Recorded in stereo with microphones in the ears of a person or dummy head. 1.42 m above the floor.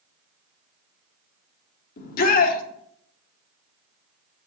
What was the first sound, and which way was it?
A shout, 55° left (ahead or behind).